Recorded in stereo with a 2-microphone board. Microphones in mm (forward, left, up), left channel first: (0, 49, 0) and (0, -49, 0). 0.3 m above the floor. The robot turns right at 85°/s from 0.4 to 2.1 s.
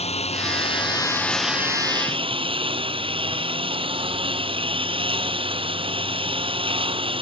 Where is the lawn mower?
95° left; by 7.2 s 120° right.